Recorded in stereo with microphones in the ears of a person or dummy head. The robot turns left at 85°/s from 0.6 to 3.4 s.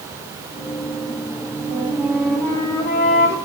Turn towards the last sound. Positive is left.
turn(degrees=80)